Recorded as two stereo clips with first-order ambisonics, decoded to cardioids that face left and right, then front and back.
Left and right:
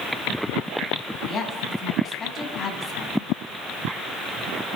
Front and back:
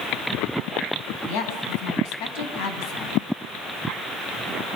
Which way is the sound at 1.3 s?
25° left.